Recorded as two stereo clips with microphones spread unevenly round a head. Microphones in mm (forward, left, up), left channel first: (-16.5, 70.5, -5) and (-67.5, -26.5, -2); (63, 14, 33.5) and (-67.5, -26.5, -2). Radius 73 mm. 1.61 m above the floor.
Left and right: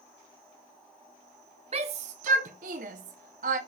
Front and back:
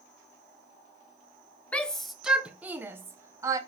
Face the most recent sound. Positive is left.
turn(degrees=-95)